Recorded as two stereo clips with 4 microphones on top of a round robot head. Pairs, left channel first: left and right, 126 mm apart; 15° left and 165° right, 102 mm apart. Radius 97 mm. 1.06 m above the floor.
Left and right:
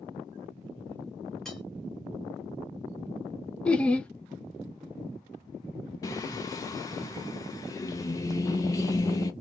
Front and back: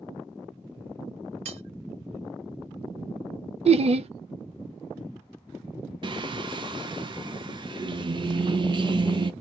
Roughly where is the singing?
Behind left.